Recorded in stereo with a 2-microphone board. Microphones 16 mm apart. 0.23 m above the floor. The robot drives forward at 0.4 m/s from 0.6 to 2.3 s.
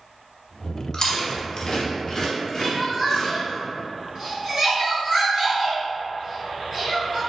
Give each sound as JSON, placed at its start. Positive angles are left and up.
{"t": 0.9, "sound": "chewing", "side_deg": 55, "distance_m": 0.7}
{"t": 2.6, "sound": "crying", "side_deg": -30, "distance_m": 1.7}